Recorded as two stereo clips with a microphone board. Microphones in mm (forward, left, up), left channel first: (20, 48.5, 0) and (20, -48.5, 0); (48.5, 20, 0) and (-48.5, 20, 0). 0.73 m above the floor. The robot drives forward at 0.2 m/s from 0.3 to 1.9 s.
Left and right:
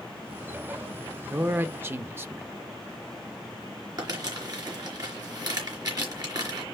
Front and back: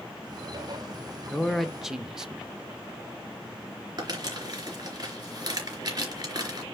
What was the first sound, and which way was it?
A man speaking, 80° right.